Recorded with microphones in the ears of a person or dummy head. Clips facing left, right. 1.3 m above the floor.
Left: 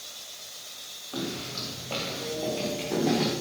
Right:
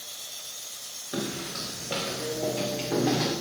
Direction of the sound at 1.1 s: 20° right (ahead or behind).